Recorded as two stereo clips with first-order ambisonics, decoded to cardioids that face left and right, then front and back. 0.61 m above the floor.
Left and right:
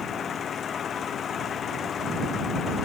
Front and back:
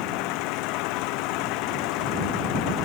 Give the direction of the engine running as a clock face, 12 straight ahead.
11 o'clock.